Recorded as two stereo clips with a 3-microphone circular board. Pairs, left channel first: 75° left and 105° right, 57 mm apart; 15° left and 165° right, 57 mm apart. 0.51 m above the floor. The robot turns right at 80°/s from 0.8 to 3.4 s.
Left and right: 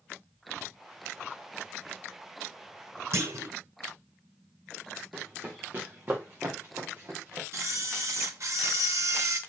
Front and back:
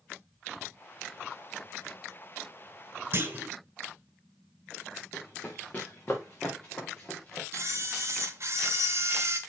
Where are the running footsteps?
40° right, 2.5 m; by 7.4 s 50° right, 4 m.